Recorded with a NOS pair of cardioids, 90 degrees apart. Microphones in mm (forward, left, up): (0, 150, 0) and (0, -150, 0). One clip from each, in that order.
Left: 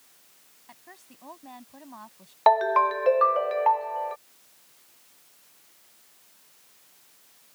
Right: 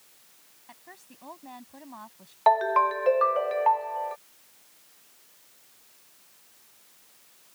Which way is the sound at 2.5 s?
20° left.